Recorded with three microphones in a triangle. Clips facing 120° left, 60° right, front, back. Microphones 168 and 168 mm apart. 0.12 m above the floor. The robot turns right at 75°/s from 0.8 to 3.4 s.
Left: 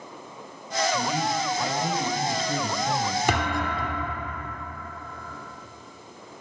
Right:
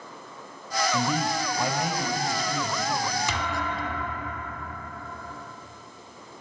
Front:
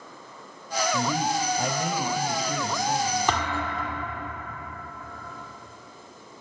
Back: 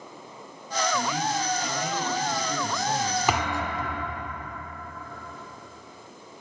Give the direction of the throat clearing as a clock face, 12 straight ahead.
No throat clearing in this recording.